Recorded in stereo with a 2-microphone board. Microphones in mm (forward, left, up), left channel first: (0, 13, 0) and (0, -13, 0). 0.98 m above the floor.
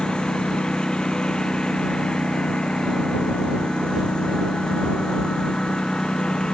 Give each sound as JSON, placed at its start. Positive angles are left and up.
{"t": 0.0, "sound": "a lawn mower", "side_deg": 35}